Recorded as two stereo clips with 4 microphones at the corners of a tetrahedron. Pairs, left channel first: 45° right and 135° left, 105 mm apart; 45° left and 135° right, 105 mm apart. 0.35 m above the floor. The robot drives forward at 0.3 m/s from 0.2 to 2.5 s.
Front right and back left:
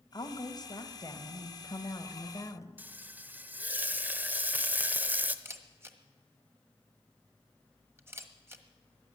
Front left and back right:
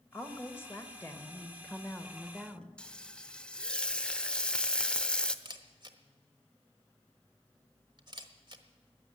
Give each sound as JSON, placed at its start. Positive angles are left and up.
{"t": 0.1, "sound": "a woman speaking", "azimuth_deg": -15, "distance_m": 1.7}
{"t": 2.8, "sound": "frying", "azimuth_deg": 110, "distance_m": 0.7}
{"t": 5.5, "sound": "a camera shutter", "azimuth_deg": -165, "distance_m": 1.2}